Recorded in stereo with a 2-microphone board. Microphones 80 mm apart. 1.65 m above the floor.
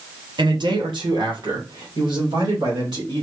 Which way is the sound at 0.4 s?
70° right (ahead or behind).